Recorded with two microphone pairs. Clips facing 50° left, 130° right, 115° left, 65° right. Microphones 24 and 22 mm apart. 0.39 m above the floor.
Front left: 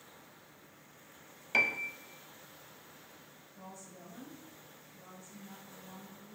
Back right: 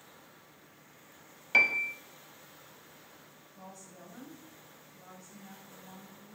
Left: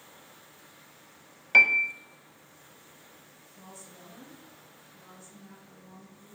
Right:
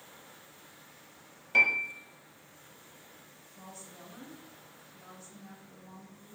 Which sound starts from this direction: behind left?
A piano, at 1.5 s.